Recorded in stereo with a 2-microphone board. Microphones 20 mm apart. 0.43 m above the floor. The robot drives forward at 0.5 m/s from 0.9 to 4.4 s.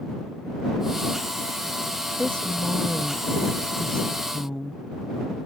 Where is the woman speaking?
60° left (ahead or behind); by 4.8 s 40° left (ahead or behind).